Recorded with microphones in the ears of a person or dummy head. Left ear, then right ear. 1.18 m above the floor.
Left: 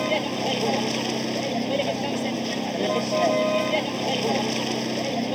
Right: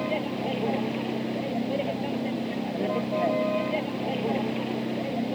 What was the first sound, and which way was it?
A vehicle, 85° left.